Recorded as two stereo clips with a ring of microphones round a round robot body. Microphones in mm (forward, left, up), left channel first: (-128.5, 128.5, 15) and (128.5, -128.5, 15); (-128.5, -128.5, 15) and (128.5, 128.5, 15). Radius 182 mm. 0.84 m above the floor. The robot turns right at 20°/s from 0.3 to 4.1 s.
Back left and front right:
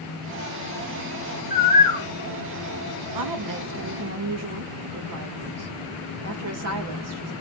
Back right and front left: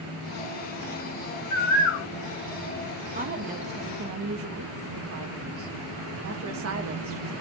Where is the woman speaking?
20° right, 0.6 m; by 7.3 s 5° right, 0.6 m.